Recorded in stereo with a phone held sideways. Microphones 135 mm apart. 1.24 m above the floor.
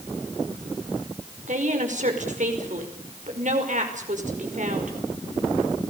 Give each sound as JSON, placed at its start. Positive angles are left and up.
{"t": 1.5, "sound": "a woman speaking", "side_deg": -60, "distance_m": 5.0}